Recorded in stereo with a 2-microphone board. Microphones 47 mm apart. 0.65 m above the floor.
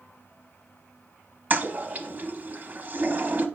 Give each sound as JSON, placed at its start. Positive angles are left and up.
{"t": 1.5, "sound": "a toilet flushing", "side_deg": -35, "distance_m": 0.7}